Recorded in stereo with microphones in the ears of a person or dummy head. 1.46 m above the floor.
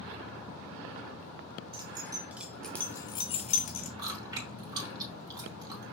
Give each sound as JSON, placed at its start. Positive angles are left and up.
{"t": 1.7, "sound": "keys jangling", "side_deg": -25, "distance_m": 1.1}
{"t": 4.0, "sound": "chewing", "side_deg": -25, "distance_m": 4.0}